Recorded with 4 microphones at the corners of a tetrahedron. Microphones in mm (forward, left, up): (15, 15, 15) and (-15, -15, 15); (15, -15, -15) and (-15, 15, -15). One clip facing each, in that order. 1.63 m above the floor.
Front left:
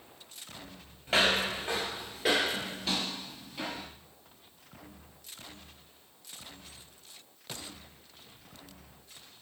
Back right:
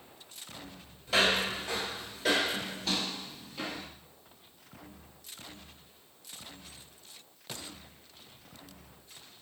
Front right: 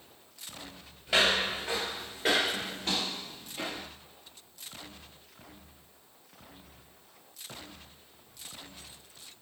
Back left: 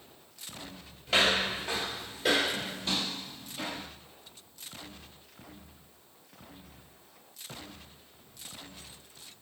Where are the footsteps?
30° left, 1.9 m; by 3.9 s 45° right, 2.5 m.